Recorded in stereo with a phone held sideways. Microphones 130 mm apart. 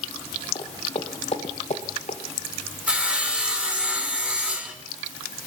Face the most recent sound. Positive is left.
turn(degrees=-10)  # may be behind; listen again after turning